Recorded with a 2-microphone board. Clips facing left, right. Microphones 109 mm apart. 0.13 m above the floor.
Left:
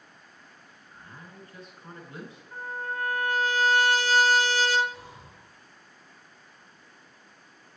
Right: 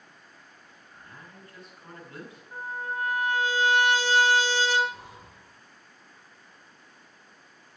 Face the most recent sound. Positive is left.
turn(degrees=-55)  # may be behind; listen again after turning